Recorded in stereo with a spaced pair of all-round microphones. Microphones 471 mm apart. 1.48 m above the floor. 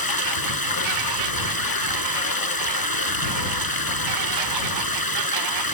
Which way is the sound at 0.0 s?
50° left (ahead or behind).